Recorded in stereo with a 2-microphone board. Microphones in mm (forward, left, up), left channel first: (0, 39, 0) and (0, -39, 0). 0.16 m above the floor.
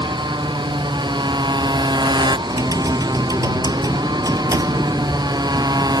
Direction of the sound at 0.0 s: 75° right (ahead or behind).